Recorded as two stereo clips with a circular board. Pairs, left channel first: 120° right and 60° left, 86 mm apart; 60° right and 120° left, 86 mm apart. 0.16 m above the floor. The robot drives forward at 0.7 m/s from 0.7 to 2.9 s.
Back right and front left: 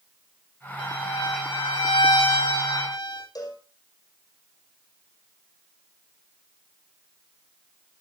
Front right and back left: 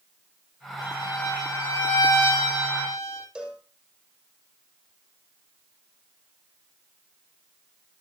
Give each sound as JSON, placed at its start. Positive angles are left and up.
{"t": 0.8, "sound": "a violin", "azimuth_deg": -100, "distance_m": 5.5}
{"t": 3.4, "sound": "a cowbell", "azimuth_deg": -160, "distance_m": 6.0}